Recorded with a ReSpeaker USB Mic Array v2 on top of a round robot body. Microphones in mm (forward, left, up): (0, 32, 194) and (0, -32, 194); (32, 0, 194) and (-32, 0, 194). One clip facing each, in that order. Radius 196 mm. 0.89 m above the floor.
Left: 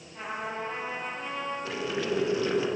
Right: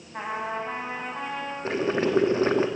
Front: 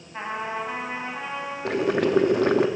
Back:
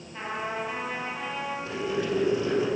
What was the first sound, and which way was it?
A trumpet, 65° right.